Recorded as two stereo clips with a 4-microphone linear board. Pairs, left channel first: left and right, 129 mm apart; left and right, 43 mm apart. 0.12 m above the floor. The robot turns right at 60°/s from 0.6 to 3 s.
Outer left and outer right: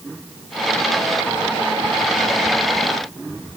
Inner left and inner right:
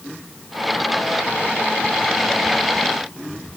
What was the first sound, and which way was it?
Only background noise.